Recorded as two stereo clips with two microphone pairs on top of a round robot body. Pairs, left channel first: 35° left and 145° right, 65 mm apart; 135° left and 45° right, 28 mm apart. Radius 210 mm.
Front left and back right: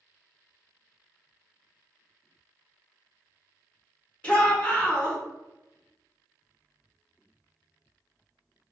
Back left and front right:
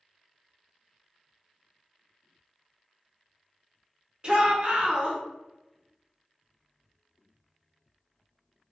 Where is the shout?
25° right, 1.0 m.